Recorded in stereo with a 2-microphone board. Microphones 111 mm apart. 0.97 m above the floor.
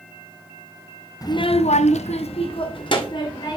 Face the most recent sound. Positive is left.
turn(degrees=40)  # may be behind; listen again after turning